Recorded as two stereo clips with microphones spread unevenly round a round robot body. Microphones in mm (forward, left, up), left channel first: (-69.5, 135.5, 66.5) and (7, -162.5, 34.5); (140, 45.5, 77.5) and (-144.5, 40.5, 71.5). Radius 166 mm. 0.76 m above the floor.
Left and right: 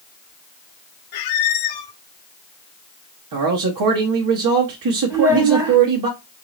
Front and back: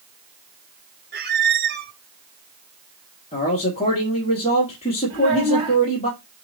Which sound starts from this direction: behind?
A child speaking, at 5.1 s.